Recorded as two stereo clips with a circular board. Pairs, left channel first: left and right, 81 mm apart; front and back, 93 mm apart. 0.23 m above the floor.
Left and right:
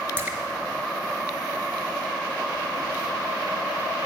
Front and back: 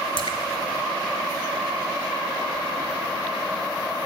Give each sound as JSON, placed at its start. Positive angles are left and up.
{"t": 0.2, "sound": "a splash", "azimuth_deg": -20, "distance_m": 1.5}